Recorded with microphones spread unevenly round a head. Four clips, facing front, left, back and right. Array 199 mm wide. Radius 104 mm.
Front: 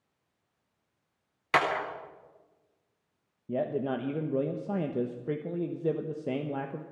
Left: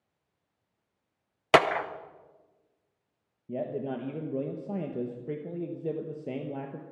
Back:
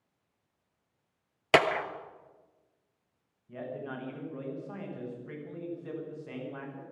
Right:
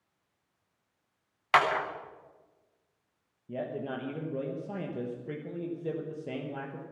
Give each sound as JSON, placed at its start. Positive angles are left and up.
{"t": 1.5, "sound": "a clap", "azimuth_deg": 110, "distance_m": 0.7}
{"t": 3.5, "sound": "a man speaking", "azimuth_deg": 20, "distance_m": 1.1}